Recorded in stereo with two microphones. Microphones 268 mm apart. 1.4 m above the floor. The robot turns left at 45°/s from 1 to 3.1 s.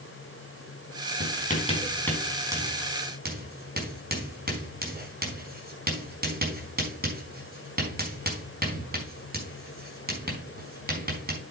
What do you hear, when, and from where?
1.2 s writing: 45° left (ahead or behind), 4.5 m; by 11.4 s 35° right (ahead or behind), 4.5 m